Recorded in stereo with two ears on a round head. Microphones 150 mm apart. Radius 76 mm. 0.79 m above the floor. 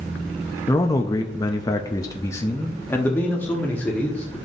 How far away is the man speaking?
About 0.7 m.